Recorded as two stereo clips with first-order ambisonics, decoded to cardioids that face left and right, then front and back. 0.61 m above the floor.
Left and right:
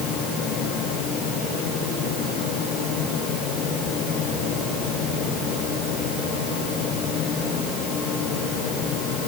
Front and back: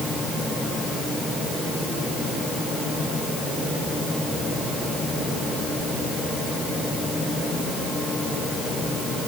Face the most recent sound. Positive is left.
No sound to turn to.